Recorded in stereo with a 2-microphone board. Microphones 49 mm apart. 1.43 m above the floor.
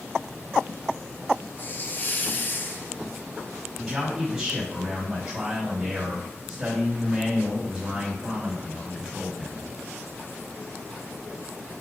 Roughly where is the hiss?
Left.